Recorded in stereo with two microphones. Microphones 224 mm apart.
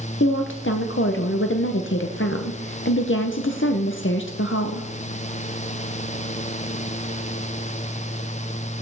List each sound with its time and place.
0.2 s a woman speaking: 60° left (ahead or behind), 0.7 m